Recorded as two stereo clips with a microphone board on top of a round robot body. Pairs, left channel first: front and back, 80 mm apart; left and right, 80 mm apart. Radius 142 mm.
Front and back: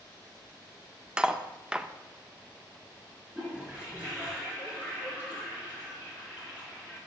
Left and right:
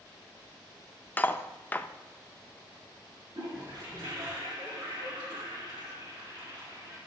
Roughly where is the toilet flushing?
Right.